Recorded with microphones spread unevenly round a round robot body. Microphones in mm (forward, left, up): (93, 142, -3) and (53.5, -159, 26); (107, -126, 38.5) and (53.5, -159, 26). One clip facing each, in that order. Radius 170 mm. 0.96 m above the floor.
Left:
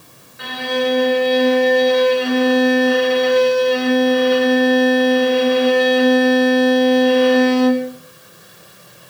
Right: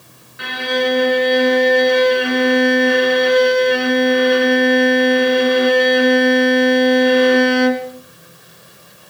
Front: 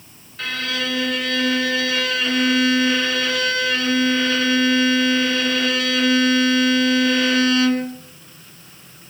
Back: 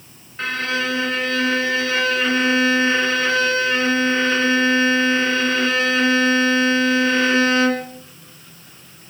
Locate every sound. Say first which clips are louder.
0.4 s a violin: right 1 dB, back 3 dB; 85° right, 2.5 m